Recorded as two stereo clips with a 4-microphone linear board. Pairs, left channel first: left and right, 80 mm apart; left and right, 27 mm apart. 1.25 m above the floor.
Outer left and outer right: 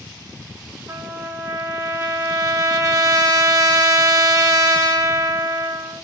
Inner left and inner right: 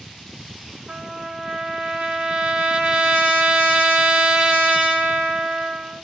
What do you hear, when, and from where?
0.9 s a trumpet: 45° right (ahead or behind), 1.5 m